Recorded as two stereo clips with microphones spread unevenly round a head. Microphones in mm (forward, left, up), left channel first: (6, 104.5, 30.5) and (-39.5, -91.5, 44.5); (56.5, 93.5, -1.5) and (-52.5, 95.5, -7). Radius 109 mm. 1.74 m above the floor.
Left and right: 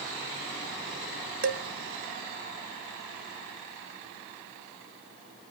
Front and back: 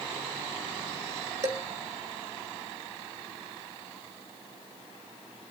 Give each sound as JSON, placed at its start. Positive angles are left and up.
{"t": 1.4, "sound": "dishes clattering", "azimuth_deg": -115, "distance_m": 1.7}